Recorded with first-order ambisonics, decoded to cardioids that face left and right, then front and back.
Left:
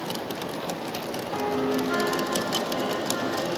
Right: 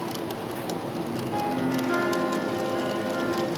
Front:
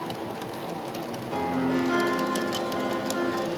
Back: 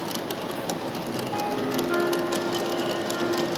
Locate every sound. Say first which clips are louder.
1.3 s a piano: left 1 dB, front 1 dB; 10° right, 1.2 m